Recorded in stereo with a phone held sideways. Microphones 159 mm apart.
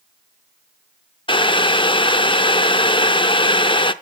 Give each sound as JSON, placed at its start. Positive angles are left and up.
{"t": 1.3, "sound": "boiling", "side_deg": 35, "distance_m": 0.5}